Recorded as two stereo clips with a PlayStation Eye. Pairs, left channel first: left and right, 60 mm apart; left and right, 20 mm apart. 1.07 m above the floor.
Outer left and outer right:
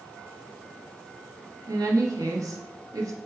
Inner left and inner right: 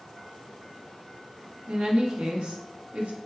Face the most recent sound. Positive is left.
turn(degrees=-70)  # may be behind; listen again after turning